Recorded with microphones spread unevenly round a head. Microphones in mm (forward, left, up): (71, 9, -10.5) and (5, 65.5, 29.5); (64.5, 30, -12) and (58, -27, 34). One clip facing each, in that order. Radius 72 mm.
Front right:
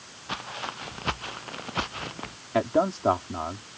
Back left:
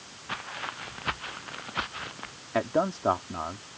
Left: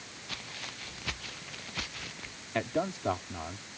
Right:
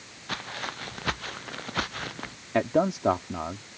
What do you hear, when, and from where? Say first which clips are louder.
0.3 s footsteps: front right 2 dB, right 10 dB; 120° right; by 2.4 s 110° right
2.5 s a man speaking: front right 3 dB, right 8 dB; 125° right